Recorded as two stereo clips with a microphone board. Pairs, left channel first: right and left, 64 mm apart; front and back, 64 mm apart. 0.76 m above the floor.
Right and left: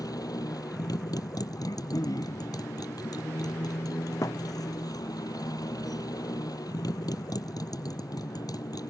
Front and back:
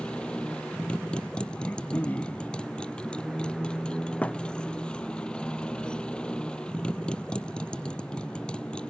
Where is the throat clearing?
65° right.